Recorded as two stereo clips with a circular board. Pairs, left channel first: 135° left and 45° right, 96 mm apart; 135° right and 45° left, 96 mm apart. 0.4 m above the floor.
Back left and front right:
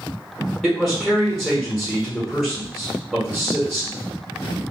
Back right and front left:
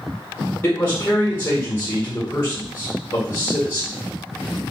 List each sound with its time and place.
0.6 s a man speaking: 140° right, 1.3 m